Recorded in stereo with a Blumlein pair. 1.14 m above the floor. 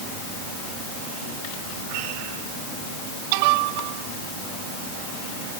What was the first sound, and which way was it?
Only background noise.